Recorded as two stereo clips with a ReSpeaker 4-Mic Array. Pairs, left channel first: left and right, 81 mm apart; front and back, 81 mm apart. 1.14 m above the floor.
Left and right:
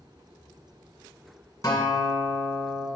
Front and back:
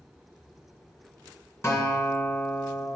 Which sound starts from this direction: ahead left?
A guitar, at 1.6 s.